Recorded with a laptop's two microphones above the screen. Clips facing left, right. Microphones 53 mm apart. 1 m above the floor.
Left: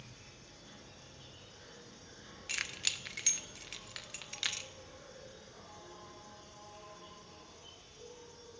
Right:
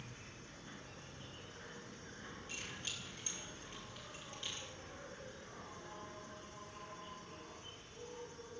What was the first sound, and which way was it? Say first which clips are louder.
An insect: right 2 dB; 30° right (ahead or behind).